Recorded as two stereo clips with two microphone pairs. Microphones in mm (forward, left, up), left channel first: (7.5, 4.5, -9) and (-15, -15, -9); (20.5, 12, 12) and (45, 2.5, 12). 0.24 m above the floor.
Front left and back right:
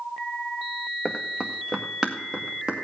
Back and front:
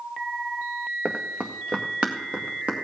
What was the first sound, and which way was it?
Running footsteps, 55° right.